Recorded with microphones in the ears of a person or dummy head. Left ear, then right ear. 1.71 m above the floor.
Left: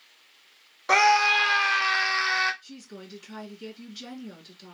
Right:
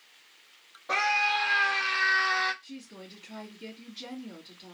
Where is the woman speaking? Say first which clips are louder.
Left 1 dB; 70° left (ahead or behind), 2 m.